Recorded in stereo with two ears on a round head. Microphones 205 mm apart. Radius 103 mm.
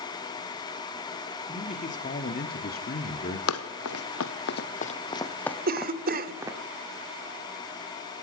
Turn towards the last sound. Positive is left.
turn(degrees=-40)  # may be behind; listen again after turning